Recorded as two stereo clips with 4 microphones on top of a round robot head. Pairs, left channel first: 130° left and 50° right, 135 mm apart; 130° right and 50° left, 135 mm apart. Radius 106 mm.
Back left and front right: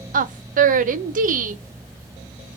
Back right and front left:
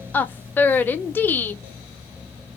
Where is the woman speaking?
55° right, 0.7 m.